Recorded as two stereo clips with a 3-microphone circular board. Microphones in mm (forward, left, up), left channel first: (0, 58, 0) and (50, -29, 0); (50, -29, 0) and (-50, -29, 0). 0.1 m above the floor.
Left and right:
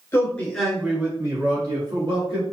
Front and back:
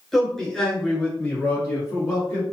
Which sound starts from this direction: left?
A man speaking, at 0.1 s.